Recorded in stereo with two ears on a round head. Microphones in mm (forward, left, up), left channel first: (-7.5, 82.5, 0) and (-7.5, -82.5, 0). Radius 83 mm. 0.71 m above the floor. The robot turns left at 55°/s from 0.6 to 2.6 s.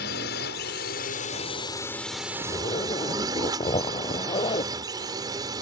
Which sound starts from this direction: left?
A drone, at 0.0 s.